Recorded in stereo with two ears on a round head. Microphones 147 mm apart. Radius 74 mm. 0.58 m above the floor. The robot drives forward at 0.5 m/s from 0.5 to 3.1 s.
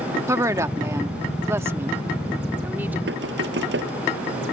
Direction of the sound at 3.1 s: 80° right.